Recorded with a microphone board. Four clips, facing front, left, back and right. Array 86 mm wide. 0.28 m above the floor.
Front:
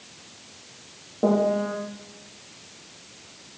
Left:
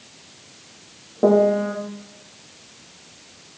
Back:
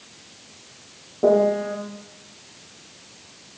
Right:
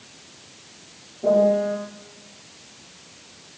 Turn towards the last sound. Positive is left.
turn(degrees=80)